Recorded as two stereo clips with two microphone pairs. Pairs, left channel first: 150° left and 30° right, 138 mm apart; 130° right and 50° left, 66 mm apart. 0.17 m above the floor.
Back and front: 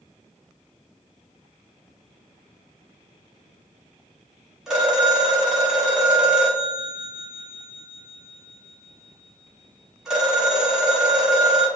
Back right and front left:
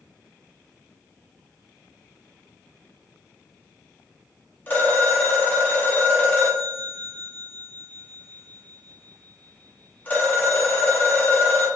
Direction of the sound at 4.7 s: 110° right.